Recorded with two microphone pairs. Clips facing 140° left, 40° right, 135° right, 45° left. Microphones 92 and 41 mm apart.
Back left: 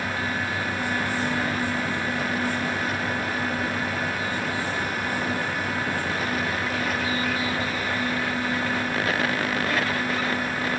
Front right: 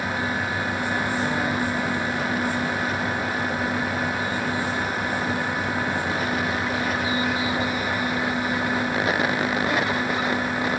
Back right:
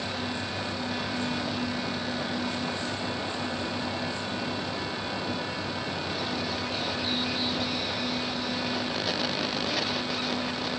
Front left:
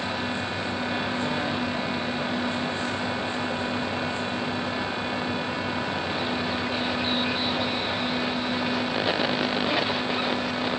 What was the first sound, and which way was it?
Only background noise.